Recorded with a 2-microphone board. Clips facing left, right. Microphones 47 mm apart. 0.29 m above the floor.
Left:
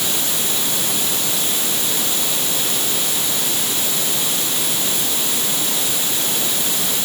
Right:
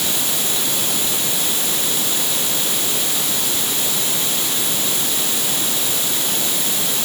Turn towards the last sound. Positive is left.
No sound to turn to.